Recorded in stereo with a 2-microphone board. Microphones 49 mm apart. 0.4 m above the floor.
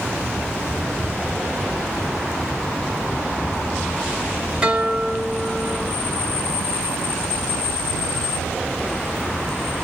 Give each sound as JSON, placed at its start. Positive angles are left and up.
{"t": 4.6, "sound": "a guitar", "side_deg": -25, "distance_m": 0.9}